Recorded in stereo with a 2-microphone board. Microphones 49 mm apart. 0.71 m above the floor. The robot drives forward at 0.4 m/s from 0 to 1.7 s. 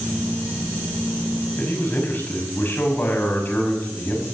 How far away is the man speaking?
About 6 m.